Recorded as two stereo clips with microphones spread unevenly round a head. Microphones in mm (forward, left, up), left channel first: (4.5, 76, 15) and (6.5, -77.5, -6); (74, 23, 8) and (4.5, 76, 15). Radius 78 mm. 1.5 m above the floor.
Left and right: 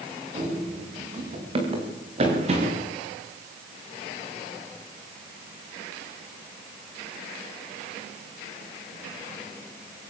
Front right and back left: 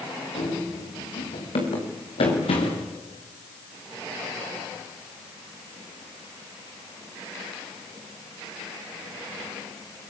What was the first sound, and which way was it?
Running footsteps, 30° right.